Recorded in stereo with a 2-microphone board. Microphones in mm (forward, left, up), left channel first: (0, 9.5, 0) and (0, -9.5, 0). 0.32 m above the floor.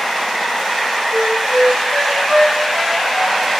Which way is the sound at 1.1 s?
80° left.